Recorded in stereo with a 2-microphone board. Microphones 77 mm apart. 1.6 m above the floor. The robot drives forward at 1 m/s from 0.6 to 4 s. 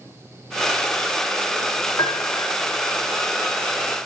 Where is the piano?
65° left (ahead or behind), 3 m; by 2.6 s 75° left (ahead or behind), 3 m.